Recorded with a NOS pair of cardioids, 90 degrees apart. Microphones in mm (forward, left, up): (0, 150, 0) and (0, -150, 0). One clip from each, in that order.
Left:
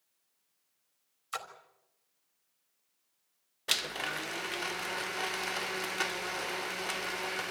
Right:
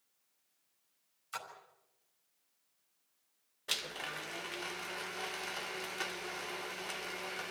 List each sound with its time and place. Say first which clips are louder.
1.3 s a splash: left 4 dB; 45° left, 4 m
3.7 s a blender: left 6 dB; 35° left, 0.9 m